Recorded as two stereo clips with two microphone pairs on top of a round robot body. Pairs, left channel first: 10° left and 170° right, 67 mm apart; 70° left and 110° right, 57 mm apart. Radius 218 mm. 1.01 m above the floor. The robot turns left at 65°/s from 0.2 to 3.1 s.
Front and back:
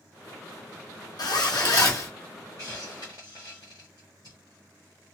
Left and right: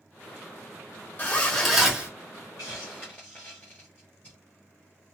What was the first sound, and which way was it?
A zipper, 15° left.